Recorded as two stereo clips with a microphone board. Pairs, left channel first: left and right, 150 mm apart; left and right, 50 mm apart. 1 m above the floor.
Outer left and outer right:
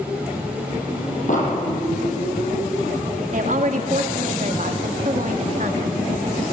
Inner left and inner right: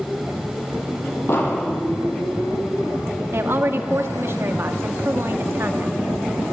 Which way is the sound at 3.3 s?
60° right (ahead or behind).